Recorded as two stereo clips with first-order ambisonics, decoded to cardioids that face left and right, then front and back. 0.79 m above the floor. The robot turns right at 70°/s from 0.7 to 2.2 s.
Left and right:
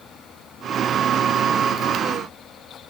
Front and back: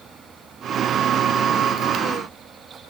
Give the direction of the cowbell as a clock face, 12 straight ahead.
No cowbell in this recording.